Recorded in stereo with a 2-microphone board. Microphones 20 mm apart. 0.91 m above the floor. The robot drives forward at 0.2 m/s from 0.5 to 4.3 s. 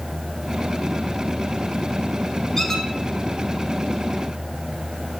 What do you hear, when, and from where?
2.6 s a squeak: 20° left (ahead or behind), 1.3 m